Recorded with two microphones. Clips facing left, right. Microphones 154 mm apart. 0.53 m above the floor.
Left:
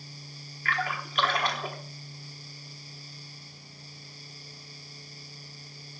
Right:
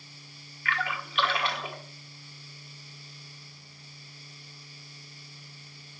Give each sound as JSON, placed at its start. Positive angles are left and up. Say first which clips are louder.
{"t": 0.7, "sound": "a splash", "louder": "left 1 dB", "side_deg": 40, "distance_m": 1.4}